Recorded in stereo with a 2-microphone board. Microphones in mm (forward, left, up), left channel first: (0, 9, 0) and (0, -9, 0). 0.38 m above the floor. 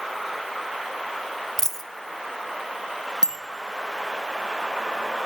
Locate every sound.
1.6 s a dropped coin: 25° left (ahead or behind), 0.8 m
3.2 s a bicycle bell: 50° right (ahead or behind), 3 m